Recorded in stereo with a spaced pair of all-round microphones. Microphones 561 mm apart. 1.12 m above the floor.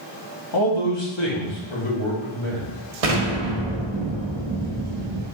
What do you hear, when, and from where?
0.5 s a man speaking: 40° left (ahead or behind), 1.1 m; by 2.7 s 60° left (ahead or behind), 2.5 m
3.0 s an explosion: 80° right, 0.9 m